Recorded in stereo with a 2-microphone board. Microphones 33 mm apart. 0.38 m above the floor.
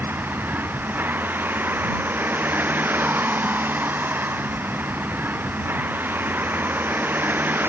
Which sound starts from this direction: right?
A vehicle, at 0.0 s.